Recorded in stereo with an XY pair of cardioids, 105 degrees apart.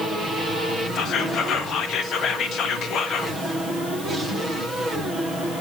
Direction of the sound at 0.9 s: 65° left.